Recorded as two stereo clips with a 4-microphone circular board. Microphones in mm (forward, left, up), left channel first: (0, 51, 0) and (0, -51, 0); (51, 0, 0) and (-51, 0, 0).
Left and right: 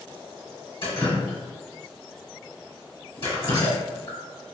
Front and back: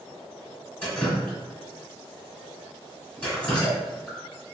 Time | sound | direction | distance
0.8 | dripping | 75° left | 1.6 m